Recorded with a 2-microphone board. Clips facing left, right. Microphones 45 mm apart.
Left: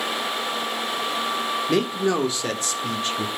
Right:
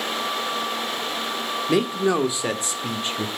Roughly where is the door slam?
No door slam in this recording.